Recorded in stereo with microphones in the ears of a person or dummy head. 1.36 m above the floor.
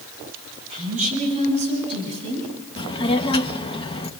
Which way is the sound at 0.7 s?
40° right (ahead or behind).